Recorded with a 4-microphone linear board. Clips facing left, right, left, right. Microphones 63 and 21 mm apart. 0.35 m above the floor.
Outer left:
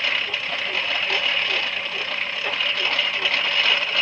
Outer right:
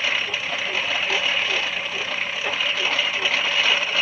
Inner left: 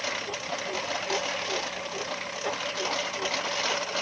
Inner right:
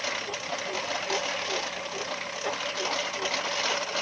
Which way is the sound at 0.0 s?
Centre (ahead or behind).